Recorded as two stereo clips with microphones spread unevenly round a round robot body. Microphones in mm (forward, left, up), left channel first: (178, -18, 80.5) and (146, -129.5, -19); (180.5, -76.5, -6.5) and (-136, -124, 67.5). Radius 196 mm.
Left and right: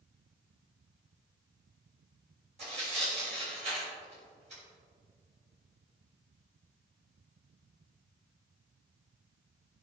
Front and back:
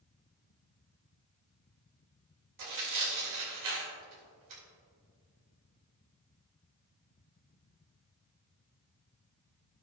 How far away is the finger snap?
I don't hear a finger snap.